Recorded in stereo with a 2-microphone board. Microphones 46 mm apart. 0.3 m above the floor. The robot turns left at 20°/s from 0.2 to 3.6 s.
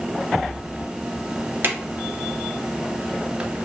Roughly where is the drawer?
Right.